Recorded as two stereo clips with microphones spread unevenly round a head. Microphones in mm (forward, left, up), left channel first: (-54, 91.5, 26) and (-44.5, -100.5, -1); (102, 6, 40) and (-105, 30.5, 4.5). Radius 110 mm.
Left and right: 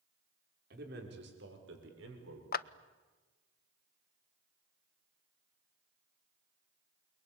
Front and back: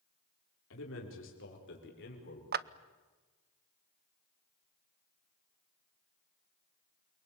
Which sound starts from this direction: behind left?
A clap, at 2.5 s.